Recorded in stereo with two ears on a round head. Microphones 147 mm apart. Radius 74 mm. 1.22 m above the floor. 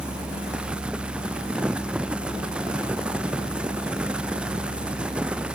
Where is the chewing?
I don't hear chewing.